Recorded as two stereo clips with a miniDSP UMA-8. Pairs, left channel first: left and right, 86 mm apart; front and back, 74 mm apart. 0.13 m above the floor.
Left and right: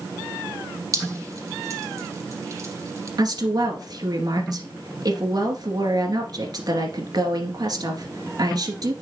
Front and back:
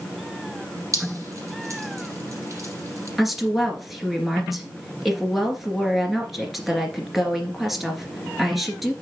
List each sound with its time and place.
0.9 s dripping: 140° right, 4.5 m
3.2 s a woman speaking: 90° right, 2 m